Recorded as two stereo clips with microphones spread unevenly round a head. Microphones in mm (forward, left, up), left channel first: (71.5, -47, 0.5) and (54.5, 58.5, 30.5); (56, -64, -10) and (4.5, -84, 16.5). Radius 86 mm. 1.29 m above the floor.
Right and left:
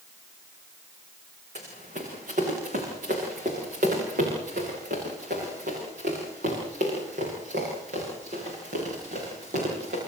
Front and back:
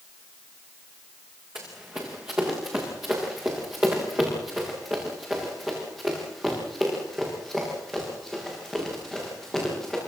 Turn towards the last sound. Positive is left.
turn(degrees=115)